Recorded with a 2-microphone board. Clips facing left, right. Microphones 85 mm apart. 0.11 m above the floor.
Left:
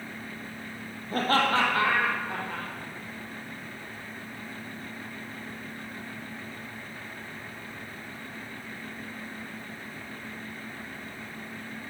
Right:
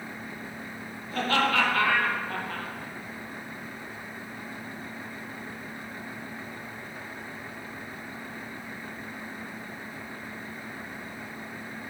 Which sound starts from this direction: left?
Laughter, at 1.1 s.